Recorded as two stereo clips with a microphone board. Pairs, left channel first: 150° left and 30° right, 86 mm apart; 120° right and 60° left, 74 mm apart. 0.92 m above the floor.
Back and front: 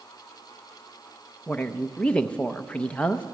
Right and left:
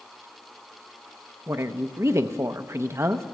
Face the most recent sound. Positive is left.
turn(degrees=80)